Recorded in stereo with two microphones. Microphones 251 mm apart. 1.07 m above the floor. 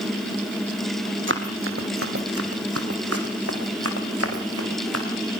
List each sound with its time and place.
1.3 s running footsteps: 50° right (ahead or behind), 2.5 m; by 5.1 s 65° right (ahead or behind), 4 m